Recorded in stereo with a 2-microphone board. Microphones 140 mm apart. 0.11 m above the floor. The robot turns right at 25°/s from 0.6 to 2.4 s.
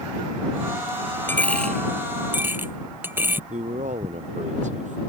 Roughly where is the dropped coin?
Centre.